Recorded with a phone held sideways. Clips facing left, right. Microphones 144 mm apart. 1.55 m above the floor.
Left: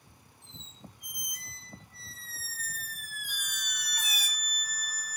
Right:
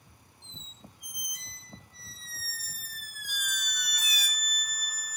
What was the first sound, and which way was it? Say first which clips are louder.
A squeak: left 1 dB; 50° left (ahead or behind).